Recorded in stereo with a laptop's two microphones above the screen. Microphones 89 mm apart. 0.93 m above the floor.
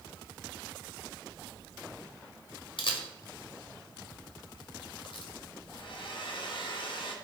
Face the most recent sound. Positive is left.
turn(degrees=65)  # may be behind; listen again after turning